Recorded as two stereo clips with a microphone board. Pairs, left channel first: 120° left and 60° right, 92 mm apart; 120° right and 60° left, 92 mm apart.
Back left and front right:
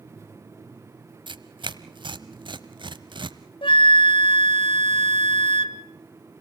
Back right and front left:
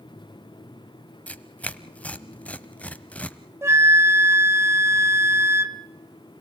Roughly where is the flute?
Behind left.